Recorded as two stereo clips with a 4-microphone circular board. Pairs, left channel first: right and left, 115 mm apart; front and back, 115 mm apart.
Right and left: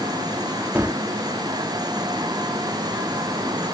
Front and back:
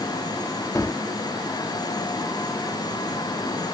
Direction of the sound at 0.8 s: 40° left.